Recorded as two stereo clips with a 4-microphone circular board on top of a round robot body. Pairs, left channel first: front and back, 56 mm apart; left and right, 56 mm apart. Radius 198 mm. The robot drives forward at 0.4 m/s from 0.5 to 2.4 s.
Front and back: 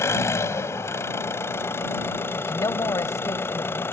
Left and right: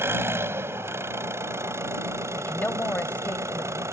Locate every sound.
0.0 s an engine running: 40° right; by 3.9 s 50° right
2.4 s a woman speaking: 30° left